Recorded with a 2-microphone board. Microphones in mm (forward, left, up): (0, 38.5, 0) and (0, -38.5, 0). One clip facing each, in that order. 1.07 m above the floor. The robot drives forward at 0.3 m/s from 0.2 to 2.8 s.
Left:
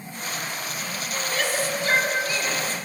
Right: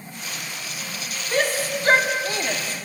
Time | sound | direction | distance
1.3 | a shout | 45° right (ahead or behind) | 2.5 m